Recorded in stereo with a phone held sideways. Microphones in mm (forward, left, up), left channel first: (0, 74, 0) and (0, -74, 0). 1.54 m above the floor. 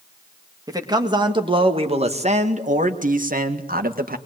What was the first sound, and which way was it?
A man speaking, 25° right (ahead or behind).